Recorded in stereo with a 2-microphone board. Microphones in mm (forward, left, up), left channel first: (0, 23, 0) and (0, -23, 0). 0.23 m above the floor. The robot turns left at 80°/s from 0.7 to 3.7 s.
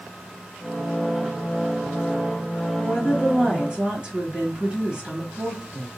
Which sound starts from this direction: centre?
A woman speaking, at 2.8 s.